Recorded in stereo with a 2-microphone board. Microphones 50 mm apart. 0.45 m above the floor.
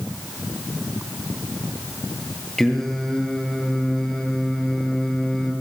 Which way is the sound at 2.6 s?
10° left (ahead or behind).